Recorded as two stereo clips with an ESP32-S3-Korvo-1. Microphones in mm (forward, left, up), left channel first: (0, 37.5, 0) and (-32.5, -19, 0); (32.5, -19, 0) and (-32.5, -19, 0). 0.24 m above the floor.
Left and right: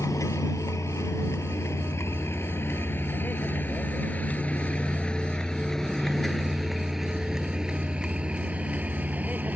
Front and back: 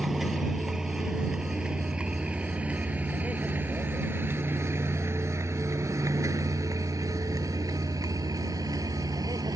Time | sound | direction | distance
0.0 | a vehicle | 95° left | ?